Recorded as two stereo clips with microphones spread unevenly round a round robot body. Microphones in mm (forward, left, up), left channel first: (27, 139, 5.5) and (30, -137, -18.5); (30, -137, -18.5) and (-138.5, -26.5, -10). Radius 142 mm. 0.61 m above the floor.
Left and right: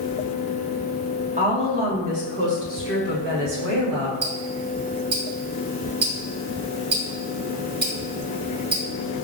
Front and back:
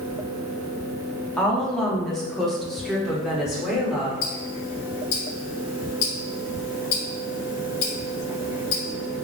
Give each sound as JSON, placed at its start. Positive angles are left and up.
{"t": 1.4, "sound": "a woman speaking", "azimuth_deg": -110, "distance_m": 1.1}
{"t": 4.2, "sound": "ticking", "azimuth_deg": -35, "distance_m": 1.5}